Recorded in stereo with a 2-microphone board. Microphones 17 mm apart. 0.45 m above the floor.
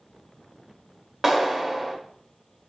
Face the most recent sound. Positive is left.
turn(degrees=-25)  # may be behind; listen again after turning